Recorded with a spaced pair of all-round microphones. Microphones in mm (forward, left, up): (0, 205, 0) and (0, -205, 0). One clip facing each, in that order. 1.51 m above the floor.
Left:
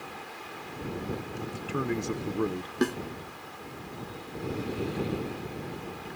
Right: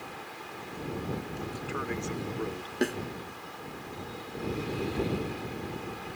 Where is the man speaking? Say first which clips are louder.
Left 4 dB; 40° left (ahead or behind); by 2.7 s 70° left (ahead or behind).